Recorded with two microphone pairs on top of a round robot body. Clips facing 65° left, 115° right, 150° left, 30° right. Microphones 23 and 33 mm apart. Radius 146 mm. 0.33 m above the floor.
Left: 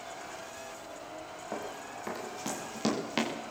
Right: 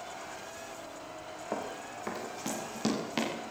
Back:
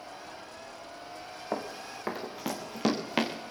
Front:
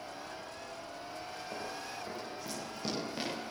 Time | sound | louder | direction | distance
1.5 | running footsteps | right 2 dB, back 8 dB | 165° left | 4 m